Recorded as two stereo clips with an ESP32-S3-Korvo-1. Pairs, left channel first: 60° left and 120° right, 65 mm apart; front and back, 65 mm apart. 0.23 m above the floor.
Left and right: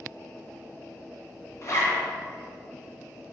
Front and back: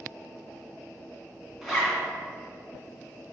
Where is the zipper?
95° left, 2.5 m.